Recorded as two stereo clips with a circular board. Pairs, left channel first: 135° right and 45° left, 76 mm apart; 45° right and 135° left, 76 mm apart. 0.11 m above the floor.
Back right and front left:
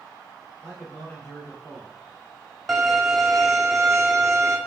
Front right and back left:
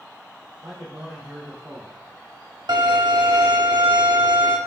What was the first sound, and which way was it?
A man speaking, 150° left.